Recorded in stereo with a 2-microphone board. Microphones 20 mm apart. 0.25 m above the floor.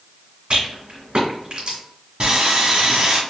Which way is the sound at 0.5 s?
60° right (ahead or behind).